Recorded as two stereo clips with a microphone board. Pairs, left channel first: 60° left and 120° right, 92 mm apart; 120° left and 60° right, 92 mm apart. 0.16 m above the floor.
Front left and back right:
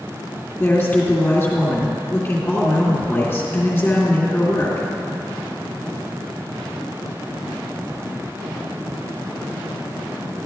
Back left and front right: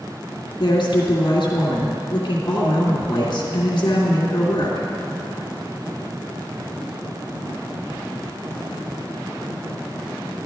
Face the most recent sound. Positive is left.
turn(degrees=120)